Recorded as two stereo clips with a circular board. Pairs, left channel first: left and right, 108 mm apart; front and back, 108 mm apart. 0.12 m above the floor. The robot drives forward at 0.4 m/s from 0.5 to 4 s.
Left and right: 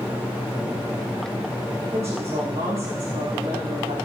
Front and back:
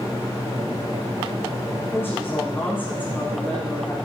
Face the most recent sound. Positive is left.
turn(degrees=-75)